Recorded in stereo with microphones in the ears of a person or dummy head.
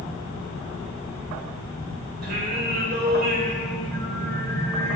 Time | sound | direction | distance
2.2 | singing | 60° right (ahead or behind) | 4.5 m